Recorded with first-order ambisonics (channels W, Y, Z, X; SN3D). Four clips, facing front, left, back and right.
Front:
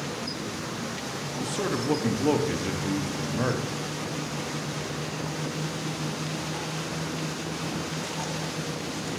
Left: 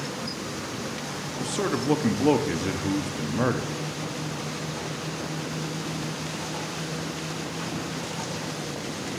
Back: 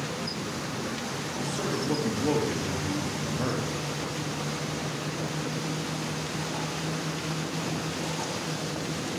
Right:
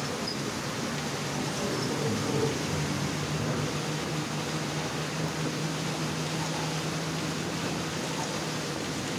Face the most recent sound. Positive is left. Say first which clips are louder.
# left 7 dB, front 3 dB
turn(degrees=75)